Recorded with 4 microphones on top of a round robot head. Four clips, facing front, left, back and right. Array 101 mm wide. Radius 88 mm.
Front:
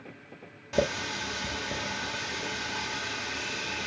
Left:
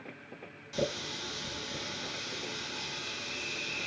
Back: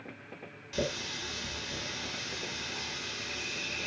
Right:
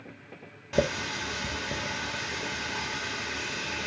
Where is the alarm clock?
I don't hear an alarm clock.